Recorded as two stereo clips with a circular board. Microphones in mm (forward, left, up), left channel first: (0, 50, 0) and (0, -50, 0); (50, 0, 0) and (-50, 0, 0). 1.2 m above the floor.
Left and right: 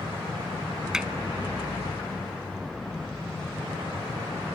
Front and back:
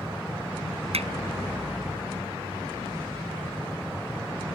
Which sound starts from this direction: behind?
Hammering, at 0.9 s.